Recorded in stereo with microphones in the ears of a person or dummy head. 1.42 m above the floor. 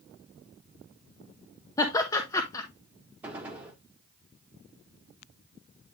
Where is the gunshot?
10° right (ahead or behind), 1.5 m.